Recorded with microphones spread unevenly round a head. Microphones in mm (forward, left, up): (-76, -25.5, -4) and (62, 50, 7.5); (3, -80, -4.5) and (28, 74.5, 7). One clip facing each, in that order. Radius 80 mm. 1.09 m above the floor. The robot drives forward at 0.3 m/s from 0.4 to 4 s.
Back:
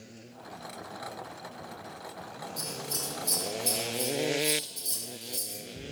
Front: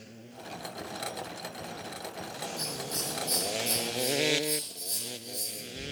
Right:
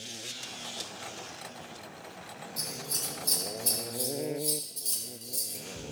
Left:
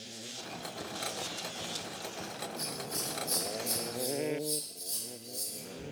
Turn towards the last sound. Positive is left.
turn(degrees=-115)